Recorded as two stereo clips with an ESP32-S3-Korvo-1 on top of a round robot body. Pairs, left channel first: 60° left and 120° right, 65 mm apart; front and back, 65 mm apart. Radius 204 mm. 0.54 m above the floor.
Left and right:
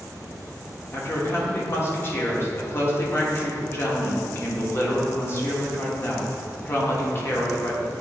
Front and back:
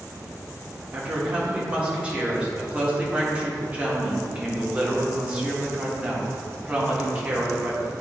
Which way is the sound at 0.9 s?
110° left.